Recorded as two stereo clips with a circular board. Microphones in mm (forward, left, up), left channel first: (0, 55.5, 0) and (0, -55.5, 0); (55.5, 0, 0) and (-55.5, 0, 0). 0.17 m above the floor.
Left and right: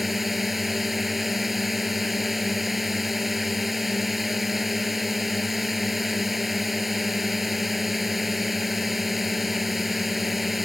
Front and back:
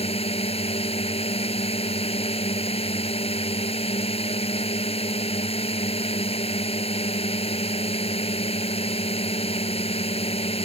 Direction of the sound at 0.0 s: Straight ahead.